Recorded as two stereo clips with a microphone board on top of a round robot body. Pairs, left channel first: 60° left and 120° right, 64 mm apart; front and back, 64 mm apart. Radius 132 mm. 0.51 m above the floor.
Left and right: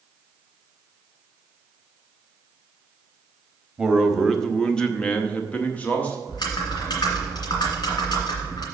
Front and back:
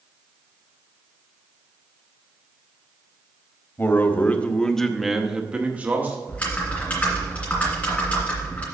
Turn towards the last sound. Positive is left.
turn(degrees=70)